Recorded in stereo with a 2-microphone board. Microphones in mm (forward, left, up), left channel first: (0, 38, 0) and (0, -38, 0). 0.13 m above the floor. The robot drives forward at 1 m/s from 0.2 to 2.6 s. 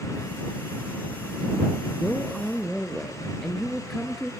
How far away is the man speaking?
About 1.3 m.